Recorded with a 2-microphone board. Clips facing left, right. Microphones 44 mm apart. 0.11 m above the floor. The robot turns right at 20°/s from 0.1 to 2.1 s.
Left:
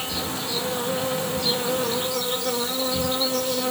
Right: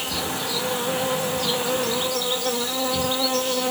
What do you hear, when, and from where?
0.0 s an insect: 100° right, 0.9 m; by 3.7 s 60° right, 0.9 m